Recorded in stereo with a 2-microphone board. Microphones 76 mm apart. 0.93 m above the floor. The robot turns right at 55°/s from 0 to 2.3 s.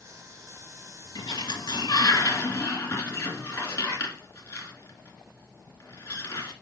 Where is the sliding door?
75° left (ahead or behind), 3 m; by 6.5 s 35° left (ahead or behind), 3 m.